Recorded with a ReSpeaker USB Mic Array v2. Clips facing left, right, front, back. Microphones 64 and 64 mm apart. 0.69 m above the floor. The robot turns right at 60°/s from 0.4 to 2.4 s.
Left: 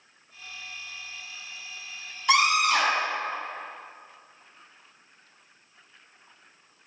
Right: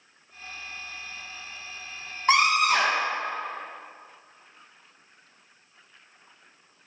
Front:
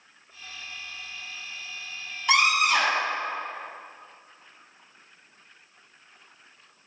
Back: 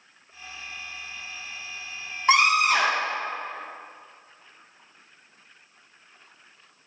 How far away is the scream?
About 3 m.